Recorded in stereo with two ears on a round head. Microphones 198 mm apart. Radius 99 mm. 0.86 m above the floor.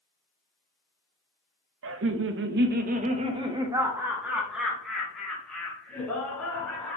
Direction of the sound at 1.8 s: 55° right (ahead or behind).